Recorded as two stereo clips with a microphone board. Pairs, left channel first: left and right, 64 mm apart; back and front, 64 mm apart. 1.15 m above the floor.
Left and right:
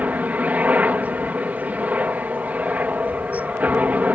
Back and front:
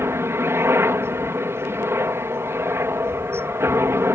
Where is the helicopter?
30° right.